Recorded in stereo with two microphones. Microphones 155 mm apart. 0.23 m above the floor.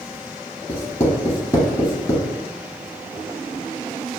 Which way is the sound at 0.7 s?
20° left (ahead or behind).